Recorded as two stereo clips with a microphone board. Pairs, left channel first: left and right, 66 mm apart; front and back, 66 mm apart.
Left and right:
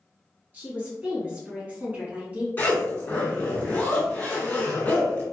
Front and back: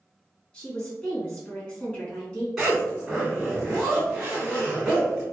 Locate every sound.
0.5 s a woman speaking: 65° right, 1.6 m
2.6 s a zipper: 105° left, 1.9 m